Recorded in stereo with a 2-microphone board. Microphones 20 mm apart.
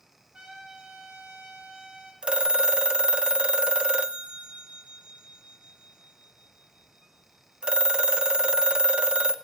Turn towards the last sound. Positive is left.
turn(degrees=-45)  # may be behind; listen again after turning